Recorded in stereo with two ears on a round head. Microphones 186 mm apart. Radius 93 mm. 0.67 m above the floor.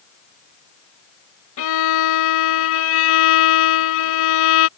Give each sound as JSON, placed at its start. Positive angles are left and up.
{"t": 1.6, "sound": "a violin", "side_deg": 70}